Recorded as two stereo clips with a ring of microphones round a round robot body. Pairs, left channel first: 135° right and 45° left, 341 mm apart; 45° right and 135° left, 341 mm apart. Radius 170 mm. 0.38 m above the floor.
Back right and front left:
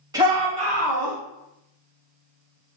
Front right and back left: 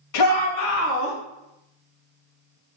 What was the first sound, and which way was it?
A shout, 30° right.